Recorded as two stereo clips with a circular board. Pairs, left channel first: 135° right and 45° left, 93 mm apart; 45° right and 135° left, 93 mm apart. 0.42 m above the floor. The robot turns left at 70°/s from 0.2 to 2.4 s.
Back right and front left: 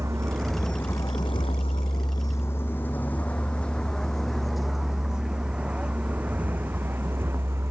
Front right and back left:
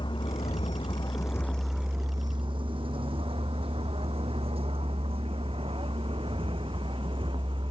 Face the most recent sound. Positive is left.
turn(degrees=110)